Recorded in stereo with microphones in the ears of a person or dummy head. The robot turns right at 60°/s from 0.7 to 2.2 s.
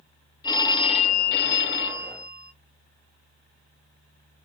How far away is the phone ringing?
About 1.0 m.